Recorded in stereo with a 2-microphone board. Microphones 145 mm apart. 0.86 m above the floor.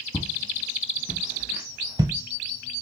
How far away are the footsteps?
About 1.2 m.